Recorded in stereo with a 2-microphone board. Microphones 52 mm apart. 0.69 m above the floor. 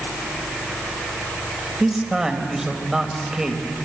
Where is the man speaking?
10° right (ahead or behind), 3 m.